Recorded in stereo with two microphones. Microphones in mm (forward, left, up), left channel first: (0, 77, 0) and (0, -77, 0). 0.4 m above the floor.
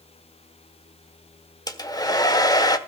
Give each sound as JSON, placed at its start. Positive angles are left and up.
{"t": 1.7, "sound": "a hair dryer", "side_deg": 25, "distance_m": 1.2}